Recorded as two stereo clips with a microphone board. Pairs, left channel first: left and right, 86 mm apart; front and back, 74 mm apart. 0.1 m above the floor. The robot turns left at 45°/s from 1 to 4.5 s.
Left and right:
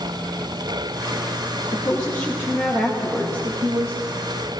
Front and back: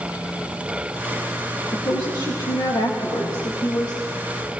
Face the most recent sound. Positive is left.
turn(degrees=-90)